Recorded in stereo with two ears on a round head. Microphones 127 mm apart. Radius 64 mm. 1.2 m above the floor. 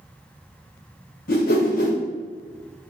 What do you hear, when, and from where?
1.3 s a whoosh: 70° left (ahead or behind), 0.9 m